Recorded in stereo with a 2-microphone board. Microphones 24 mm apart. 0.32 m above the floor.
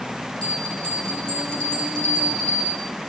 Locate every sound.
0.4 s a bell: 40° left (ahead or behind), 8.5 m